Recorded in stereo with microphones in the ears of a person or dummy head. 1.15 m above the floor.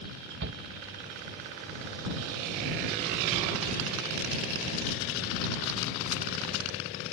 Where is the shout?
55° right (ahead or behind).